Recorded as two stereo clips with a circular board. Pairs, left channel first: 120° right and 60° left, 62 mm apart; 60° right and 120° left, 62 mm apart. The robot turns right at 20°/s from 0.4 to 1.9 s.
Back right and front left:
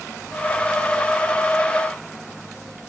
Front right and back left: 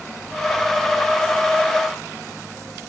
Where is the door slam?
I don't hear a door slam.